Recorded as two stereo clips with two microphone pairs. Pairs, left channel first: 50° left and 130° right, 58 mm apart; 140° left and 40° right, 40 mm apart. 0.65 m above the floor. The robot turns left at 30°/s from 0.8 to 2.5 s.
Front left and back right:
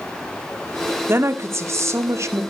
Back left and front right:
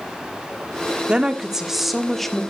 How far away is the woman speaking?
About 1.5 m.